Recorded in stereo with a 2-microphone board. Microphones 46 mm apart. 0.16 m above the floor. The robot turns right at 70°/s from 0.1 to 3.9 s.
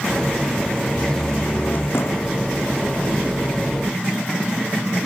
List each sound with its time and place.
0.9 s a door slam: 10° right; by 2.4 s 90° left